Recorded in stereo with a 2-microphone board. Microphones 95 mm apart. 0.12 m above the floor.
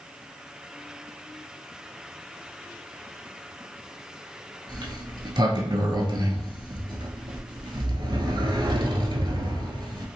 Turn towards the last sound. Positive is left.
turn(degrees=-55)  # may be behind; listen again after turning